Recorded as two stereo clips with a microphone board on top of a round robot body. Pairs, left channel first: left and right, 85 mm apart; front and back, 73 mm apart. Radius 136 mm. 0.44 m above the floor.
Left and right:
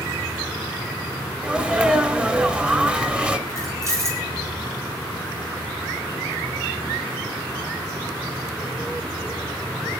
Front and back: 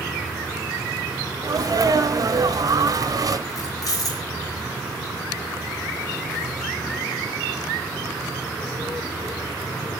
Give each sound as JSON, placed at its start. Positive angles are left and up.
{"t": 1.4, "sound": "a sneeze", "azimuth_deg": -165, "distance_m": 2.0}
{"t": 3.5, "sound": "keys jangling", "azimuth_deg": -35, "distance_m": 6.0}